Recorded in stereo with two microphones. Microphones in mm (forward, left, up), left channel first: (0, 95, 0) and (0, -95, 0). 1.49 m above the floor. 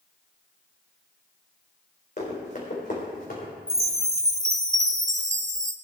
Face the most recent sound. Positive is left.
turn(degrees=-15)  # may be behind; listen again after turning